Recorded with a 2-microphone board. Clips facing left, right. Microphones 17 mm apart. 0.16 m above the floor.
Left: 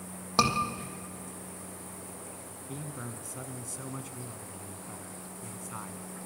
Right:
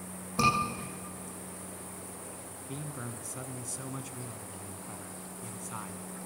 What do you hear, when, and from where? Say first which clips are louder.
0.4 s a scream: even; 65° left (ahead or behind), 6 m
2.7 s a man speaking: even; 15° right (ahead or behind), 1.2 m